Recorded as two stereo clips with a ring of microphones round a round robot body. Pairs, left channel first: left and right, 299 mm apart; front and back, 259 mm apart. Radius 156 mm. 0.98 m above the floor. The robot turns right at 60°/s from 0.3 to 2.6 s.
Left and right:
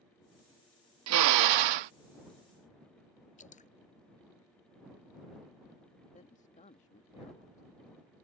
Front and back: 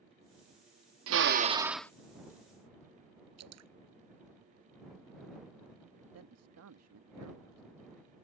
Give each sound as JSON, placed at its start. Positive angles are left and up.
{"t": 1.1, "sound": "a drill", "azimuth_deg": -135}
{"t": 3.4, "sound": "dripping", "azimuth_deg": 155}
{"t": 6.1, "sound": "a man speaking", "azimuth_deg": 155}